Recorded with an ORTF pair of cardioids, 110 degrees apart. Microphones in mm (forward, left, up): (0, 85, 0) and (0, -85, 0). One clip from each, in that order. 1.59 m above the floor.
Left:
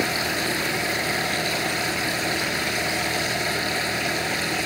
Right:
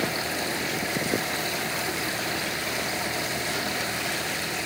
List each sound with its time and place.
0.0 s a machine running: 35° left